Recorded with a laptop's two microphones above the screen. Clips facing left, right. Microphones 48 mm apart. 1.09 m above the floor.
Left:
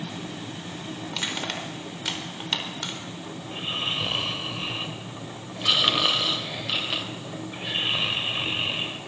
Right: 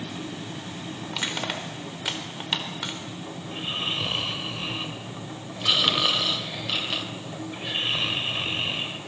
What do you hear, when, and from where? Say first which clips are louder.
1.1 s crushing: right 1 dB; 10° right (ahead or behind), 4.5 m
3.4 s snoring: even; 5° left (ahead or behind), 1.9 m